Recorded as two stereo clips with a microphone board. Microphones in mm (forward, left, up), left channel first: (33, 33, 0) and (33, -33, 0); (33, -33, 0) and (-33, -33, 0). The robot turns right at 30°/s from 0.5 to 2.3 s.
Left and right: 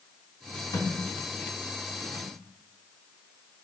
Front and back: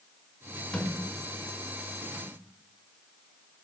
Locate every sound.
0.7 s a thud: 80° left, 3 m; by 2.3 s 125° left, 3 m